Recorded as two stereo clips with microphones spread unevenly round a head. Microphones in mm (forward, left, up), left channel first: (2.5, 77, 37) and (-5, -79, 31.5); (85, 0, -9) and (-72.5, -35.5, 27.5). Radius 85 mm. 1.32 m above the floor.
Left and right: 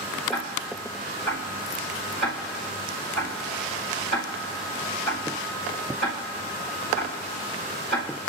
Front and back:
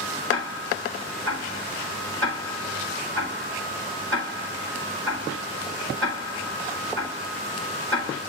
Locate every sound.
0.3 s ticking: 175° left, 6.5 m